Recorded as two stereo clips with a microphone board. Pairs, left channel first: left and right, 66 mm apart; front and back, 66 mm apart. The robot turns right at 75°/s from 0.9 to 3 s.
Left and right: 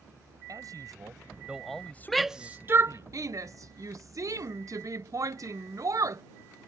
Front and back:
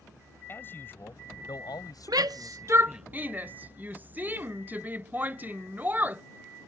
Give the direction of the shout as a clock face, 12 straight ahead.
6 o'clock.